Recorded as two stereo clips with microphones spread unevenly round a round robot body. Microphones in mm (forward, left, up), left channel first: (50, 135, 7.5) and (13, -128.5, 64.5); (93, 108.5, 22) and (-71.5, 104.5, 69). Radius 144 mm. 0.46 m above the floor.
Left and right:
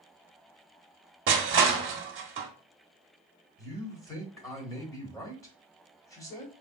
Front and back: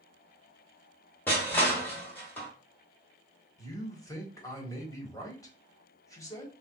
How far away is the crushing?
About 1.0 m.